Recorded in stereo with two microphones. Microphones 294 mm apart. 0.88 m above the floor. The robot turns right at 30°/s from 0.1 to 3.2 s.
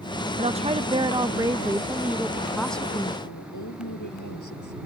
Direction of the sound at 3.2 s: 80° left.